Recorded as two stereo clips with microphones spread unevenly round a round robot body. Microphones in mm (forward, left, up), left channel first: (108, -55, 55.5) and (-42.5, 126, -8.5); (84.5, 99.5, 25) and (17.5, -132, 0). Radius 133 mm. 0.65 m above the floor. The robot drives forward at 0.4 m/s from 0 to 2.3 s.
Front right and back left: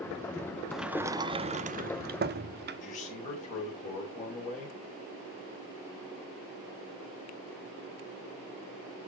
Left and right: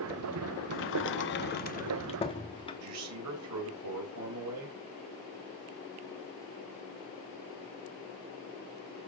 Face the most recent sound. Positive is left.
turn(degrees=-115)